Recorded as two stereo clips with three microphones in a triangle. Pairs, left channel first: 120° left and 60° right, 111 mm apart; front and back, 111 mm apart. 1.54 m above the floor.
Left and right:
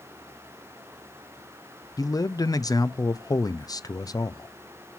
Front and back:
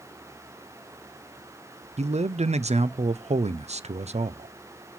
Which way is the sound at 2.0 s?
175° left.